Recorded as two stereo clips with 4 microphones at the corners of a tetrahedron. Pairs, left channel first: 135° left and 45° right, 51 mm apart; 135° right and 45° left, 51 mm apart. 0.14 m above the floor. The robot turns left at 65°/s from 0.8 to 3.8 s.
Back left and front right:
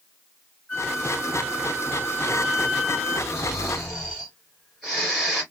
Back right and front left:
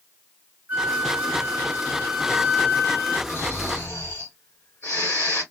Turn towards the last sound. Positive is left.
turn(degrees=-145)